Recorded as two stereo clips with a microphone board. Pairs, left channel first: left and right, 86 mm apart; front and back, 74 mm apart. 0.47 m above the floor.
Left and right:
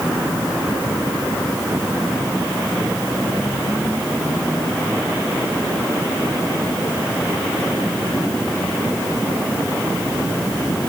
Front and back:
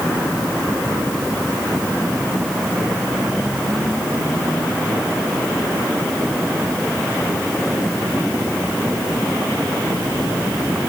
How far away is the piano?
I don't hear a piano.